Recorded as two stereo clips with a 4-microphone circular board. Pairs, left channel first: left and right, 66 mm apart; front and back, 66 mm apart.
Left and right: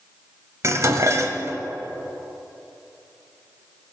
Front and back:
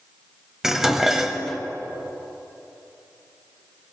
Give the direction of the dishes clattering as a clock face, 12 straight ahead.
3 o'clock.